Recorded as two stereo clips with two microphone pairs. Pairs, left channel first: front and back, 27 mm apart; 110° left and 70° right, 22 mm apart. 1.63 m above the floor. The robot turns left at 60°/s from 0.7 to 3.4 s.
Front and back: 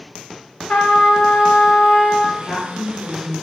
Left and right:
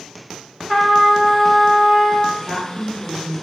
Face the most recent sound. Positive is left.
turn(degrees=-40)